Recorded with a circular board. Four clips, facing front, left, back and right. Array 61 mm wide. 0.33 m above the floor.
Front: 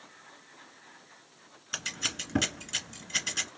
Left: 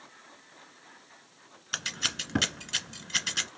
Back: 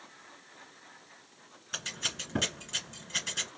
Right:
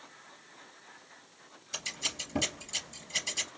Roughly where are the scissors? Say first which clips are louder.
Left 5 dB, front 2 dB; left.